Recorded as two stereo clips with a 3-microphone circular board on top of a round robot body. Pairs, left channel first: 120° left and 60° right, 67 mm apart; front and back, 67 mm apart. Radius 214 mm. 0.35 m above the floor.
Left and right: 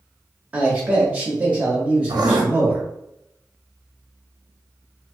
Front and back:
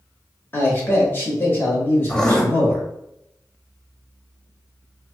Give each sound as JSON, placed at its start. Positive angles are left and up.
{"t": 0.5, "sound": "a man speaking", "azimuth_deg": -10, "distance_m": 1.5}
{"t": 2.1, "sound": "writing", "azimuth_deg": -80, "distance_m": 0.6}